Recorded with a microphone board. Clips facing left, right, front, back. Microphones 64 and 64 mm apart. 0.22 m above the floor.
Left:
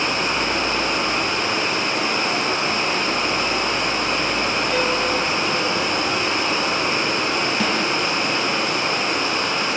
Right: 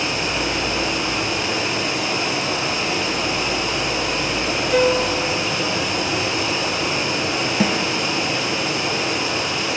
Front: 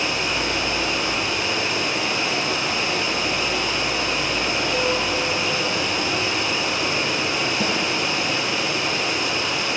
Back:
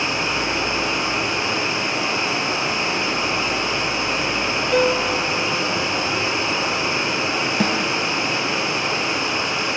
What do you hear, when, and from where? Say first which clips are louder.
0.0 s running water: left 1 dB, back 1 dB; 125° left, 1.1 m
4.7 s a piano: right 6 dB, back 7 dB; 170° right, 0.7 m
7.6 s a snare drum: right 1 dB, back 2 dB; 165° right, 0.6 m